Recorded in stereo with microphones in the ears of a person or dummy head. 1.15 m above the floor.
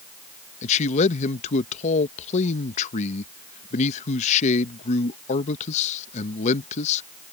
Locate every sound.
0.6 s a man speaking: 40° left (ahead or behind)